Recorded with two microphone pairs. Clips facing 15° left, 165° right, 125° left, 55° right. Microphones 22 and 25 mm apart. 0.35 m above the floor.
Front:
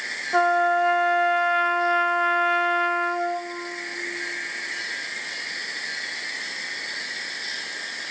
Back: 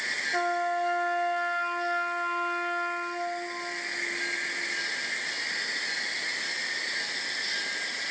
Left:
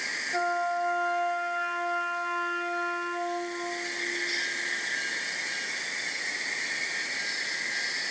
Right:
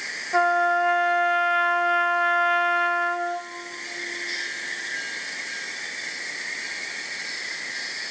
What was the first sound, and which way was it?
A trumpet, 25° right.